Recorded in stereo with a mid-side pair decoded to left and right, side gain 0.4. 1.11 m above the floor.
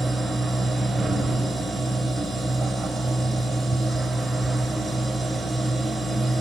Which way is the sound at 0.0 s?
25° right.